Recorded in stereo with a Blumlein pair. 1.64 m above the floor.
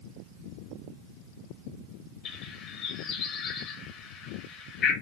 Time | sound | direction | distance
2.2 | a bird | 30° left | 0.9 m